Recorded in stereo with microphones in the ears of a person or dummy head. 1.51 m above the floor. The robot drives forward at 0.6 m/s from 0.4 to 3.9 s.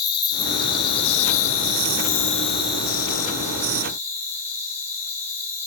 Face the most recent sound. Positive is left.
turn(degrees=15)  # may be behind; listen again after turning